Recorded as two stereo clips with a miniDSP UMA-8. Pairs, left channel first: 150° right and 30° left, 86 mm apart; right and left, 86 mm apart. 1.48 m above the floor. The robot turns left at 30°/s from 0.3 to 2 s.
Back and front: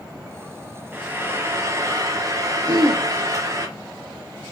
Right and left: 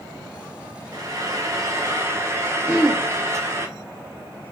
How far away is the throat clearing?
About 0.5 m.